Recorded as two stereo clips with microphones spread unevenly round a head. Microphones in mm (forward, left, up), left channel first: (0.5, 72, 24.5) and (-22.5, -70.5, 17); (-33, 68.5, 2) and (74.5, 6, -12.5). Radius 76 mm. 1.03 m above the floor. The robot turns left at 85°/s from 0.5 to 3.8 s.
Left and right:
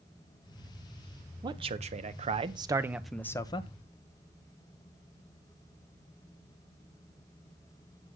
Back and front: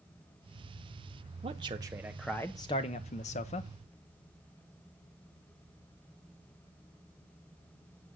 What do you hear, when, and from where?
1.4 s a man speaking: 45° right, 0.8 m; by 3.7 s 120° left, 0.8 m